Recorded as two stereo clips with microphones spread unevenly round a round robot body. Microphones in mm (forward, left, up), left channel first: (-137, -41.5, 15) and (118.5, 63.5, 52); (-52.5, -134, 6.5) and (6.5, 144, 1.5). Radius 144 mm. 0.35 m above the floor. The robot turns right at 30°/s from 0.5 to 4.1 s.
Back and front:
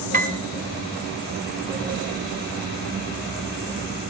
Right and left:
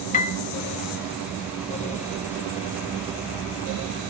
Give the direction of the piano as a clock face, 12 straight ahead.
1 o'clock.